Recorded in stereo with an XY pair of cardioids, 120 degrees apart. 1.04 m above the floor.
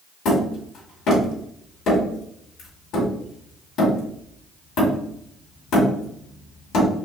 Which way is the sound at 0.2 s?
65° left.